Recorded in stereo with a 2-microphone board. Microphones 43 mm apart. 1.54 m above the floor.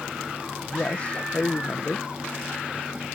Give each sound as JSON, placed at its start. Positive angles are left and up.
{"t": 0.6, "sound": "a man speaking", "side_deg": 30}